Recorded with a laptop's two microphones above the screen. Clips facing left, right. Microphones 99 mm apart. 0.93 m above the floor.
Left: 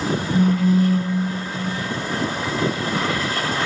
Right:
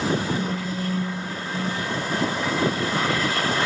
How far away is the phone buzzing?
About 3 m.